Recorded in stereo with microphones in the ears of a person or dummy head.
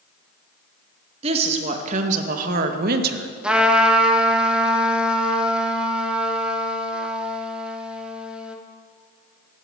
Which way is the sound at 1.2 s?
35° right (ahead or behind).